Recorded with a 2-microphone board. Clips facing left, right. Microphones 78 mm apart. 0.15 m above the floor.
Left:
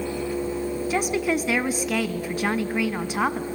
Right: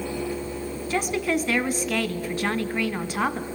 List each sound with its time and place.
0.9 s a woman speaking: 10° left (ahead or behind), 1.1 m